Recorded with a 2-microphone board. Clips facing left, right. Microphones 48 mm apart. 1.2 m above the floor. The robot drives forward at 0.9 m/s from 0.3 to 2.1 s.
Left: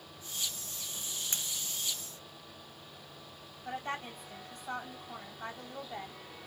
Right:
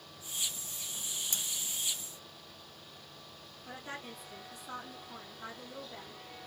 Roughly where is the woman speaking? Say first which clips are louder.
Left 6 dB; left.